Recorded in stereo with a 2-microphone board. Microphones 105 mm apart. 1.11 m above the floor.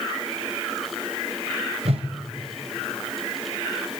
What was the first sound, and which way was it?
A whoosh, 80° right.